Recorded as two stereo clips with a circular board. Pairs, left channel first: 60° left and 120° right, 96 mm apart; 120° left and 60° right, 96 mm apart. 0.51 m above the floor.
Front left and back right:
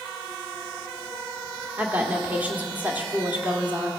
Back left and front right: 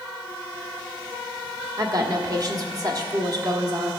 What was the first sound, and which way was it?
A woman speaking, 55° right.